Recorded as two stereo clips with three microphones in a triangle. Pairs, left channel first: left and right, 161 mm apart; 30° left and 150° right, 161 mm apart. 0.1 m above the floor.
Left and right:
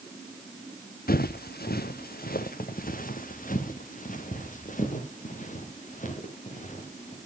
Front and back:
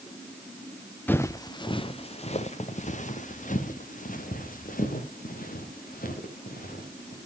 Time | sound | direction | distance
1.1 | footsteps | 105° left | 0.8 m